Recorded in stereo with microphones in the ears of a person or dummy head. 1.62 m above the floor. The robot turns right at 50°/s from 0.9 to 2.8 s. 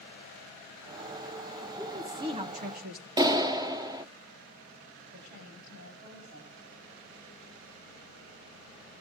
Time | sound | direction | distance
1.8 | a woman speaking | 175° right | 2 m
3.2 | a clap | 20° right (ahead or behind) | 1.0 m
5.1 | a woman speaking | 55° right (ahead or behind) | 8 m